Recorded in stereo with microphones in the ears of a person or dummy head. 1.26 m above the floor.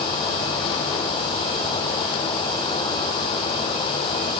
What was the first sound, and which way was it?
Only background noise.